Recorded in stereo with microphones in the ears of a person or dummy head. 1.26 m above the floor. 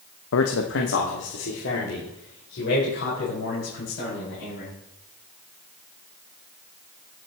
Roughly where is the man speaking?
Left.